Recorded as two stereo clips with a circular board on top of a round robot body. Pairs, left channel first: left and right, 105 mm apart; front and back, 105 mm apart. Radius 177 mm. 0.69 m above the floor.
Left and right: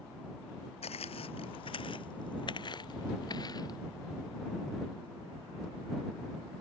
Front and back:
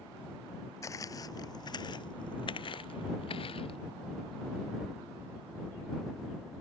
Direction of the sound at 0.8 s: 65° left.